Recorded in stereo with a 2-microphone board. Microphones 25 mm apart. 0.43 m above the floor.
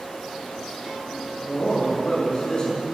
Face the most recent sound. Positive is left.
turn(degrees=30)  # may be behind; listen again after turning